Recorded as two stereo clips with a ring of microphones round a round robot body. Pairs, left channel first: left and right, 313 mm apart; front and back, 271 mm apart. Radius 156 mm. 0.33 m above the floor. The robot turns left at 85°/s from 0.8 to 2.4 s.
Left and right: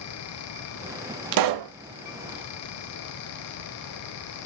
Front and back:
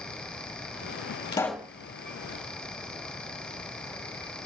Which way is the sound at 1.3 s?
75° right.